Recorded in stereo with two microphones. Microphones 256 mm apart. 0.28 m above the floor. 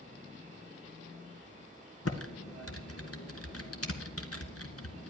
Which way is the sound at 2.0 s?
65° left (ahead or behind).